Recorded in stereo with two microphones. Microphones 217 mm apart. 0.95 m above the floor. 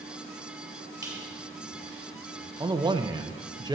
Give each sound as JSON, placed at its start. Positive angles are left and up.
{"t": 1.0, "sound": "a squeak", "side_deg": -15, "distance_m": 2.5}
{"t": 2.6, "sound": "a man speaking", "side_deg": -20, "distance_m": 0.5}